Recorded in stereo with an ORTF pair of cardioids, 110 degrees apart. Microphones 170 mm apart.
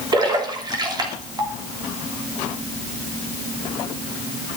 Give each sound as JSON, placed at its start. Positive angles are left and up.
{"t": 0.1, "sound": "a splash", "azimuth_deg": -25, "distance_m": 3.0}